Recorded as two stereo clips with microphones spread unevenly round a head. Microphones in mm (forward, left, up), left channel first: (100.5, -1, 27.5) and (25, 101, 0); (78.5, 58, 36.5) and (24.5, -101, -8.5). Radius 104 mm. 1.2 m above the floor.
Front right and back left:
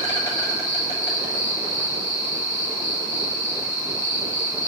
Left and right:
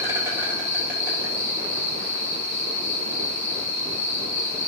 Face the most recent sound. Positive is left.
turn(degrees=-100)